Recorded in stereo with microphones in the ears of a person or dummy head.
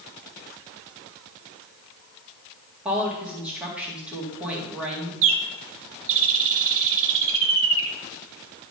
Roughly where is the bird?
Right.